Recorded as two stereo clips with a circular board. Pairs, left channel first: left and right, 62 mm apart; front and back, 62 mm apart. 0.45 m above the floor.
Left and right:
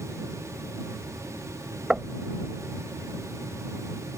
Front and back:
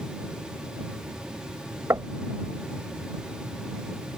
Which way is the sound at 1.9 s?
165° right.